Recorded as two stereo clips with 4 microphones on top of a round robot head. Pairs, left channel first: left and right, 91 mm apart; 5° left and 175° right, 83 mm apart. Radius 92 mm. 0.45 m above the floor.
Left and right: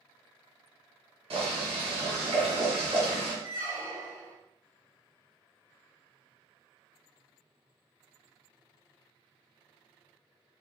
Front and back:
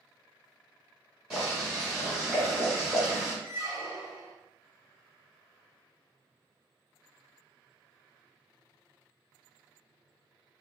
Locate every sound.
1.3 s boiling: 95° right, 1.6 m
3.4 s a squeak: 40° right, 1.4 m